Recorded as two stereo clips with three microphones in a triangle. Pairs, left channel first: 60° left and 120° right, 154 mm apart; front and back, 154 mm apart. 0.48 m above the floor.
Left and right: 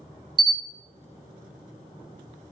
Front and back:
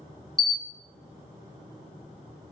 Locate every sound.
0.4 s a camera shutter: 120° right, 0.5 m